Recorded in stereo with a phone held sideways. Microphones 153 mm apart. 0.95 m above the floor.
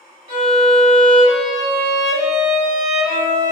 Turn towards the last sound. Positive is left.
turn(degrees=-45)  # may be behind; listen again after turning